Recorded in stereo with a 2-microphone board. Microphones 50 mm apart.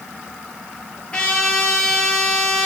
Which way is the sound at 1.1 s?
15° left (ahead or behind).